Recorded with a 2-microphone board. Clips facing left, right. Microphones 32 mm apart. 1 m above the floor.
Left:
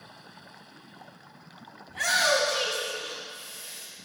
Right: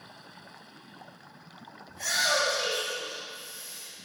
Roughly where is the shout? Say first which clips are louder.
Left 3 dB; left.